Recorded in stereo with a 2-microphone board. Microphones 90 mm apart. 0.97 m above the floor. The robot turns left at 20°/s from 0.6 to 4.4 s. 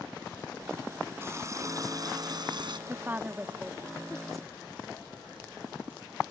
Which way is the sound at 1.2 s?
30° right.